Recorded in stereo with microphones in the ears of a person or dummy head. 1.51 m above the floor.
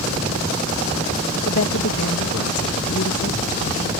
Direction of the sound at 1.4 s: 75° left (ahead or behind).